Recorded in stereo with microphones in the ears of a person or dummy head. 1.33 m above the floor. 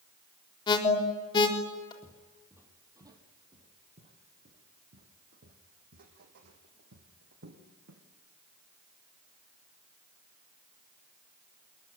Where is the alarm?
25° left (ahead or behind), 3.5 m.